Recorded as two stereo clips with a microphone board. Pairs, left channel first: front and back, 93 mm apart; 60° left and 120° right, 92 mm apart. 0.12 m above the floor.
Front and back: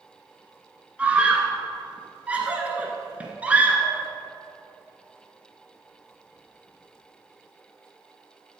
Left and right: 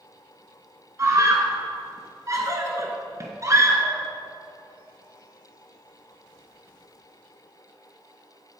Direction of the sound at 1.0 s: 120° right.